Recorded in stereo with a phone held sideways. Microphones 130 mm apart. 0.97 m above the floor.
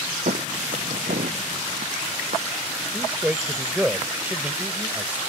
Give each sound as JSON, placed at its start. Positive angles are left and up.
{"t": 0.3, "sound": "footsteps", "side_deg": -80}
{"t": 2.9, "sound": "a man speaking", "side_deg": -10}